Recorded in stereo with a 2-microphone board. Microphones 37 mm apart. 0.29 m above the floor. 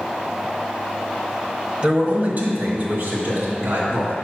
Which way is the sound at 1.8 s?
35° right (ahead or behind).